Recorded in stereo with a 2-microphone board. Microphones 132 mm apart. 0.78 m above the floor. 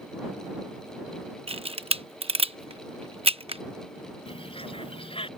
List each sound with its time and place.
1.5 s a camera shutter: 45° right (ahead or behind)
4.3 s a bird: 45° left (ahead or behind)